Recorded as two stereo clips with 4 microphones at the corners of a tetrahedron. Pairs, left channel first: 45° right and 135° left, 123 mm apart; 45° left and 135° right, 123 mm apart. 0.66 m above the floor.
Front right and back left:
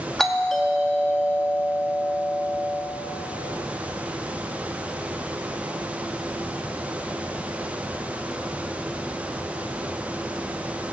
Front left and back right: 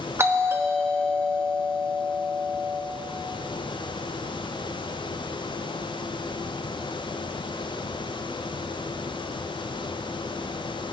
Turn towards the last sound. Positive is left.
turn(degrees=-125)